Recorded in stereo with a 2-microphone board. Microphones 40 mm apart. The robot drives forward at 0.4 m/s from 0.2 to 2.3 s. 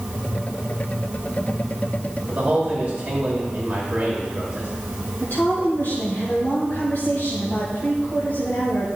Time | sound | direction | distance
2.3 | a man speaking | 30° right (ahead or behind) | 2 m
5.2 | a woman speaking | 55° left (ahead or behind) | 2.5 m